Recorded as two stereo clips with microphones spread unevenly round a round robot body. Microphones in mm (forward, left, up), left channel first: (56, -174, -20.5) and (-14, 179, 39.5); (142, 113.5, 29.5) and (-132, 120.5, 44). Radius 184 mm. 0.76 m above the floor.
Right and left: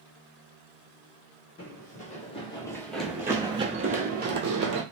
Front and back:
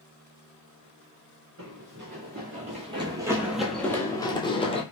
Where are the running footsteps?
145° right, 1.1 m; by 4.8 s 65° left, 1.1 m.